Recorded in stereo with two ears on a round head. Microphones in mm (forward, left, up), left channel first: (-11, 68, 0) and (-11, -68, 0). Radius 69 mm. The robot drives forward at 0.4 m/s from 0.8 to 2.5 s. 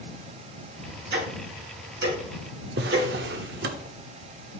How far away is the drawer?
About 1.0 m.